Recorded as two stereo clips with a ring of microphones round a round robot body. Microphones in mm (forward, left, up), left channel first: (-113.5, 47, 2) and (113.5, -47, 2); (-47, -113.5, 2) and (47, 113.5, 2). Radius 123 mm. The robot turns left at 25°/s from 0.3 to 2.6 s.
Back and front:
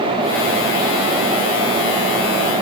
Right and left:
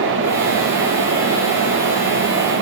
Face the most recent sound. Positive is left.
No sound to turn to.